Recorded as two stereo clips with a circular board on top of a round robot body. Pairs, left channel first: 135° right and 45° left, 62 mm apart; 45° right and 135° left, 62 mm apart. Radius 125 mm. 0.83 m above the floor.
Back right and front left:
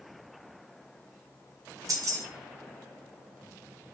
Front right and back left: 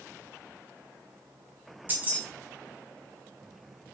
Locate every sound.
1.9 s keys jangling: 75° left, 0.8 m